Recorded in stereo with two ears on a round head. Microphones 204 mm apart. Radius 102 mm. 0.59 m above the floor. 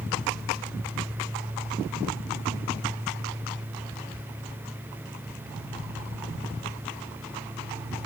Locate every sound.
Only background noise.